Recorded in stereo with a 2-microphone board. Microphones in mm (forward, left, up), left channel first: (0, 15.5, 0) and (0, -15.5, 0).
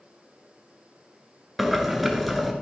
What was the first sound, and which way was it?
Boiling, centre (ahead or behind).